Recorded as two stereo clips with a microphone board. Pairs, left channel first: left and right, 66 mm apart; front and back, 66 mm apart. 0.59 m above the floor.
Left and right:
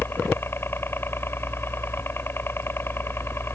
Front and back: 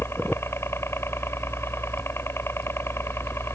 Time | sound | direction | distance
0.0 | a helicopter | 40° left | ?